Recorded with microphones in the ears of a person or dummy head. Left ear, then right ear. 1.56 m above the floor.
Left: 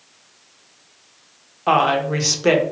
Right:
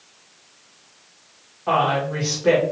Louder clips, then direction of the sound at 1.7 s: Left 3 dB; 85° left.